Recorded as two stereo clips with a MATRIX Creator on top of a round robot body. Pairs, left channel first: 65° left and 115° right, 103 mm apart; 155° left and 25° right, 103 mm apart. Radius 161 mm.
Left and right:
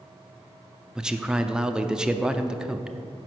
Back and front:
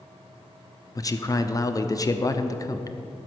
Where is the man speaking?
170° left, 0.8 m.